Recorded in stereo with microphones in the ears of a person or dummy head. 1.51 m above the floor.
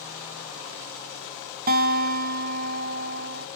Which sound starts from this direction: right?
A guitar, at 1.7 s.